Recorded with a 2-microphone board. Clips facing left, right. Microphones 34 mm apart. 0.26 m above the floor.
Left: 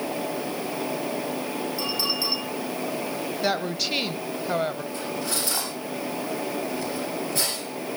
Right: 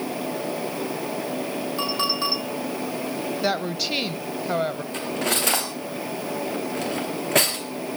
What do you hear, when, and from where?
1.8 s a clink: 50° right (ahead or behind), 9 m
3.4 s a woman speaking: 5° right (ahead or behind), 0.9 m
4.9 s cutlery clinking: 75° right (ahead or behind), 3 m